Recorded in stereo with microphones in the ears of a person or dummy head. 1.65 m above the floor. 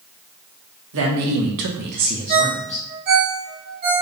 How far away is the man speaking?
About 1.2 m.